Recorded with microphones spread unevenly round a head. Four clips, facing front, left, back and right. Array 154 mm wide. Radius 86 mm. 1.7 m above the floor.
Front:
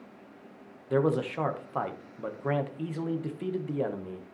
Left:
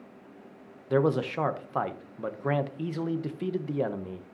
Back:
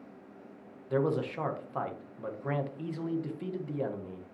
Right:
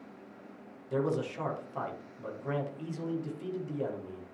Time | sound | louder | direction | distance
0.9 | a man speaking | left 6 dB, front 3 dB | 40° left | 1.1 m